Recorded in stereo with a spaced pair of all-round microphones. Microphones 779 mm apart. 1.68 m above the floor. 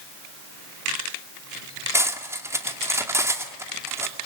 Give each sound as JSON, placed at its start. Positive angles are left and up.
{"t": 1.9, "sound": "cutlery clinking", "side_deg": -5, "distance_m": 2.0}